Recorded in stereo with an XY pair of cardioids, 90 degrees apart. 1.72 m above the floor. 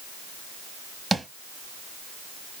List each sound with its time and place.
1.1 s tapping: 25° right, 1.8 m